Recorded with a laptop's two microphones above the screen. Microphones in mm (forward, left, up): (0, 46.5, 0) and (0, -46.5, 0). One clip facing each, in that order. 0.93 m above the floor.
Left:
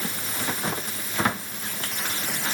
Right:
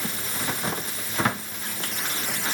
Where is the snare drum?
I don't hear a snare drum.